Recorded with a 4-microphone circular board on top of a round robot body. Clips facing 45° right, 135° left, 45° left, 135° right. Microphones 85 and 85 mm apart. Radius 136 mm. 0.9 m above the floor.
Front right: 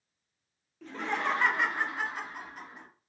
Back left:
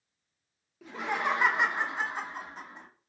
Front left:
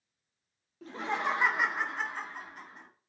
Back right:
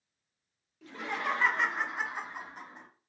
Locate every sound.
0.8 s laughter: 55° left, 1.0 m; by 2.9 s 175° right, 1.2 m